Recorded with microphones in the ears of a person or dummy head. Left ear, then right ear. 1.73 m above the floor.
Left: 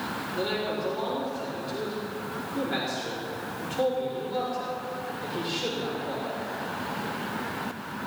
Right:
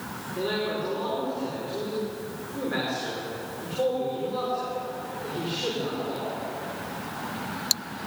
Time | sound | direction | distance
0.3 | a man speaking | 25° left (ahead or behind) | 6 m